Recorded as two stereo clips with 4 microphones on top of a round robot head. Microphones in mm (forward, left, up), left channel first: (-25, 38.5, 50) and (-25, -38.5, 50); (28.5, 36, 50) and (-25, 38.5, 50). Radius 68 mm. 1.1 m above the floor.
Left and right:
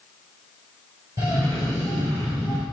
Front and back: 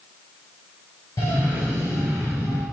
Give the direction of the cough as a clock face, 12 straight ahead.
1 o'clock.